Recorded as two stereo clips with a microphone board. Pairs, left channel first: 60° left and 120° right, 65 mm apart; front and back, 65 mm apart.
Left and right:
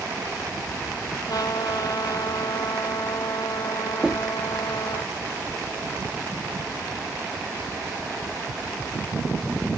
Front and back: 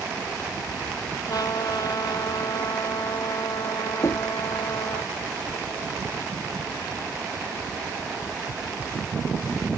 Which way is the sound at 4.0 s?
45° right.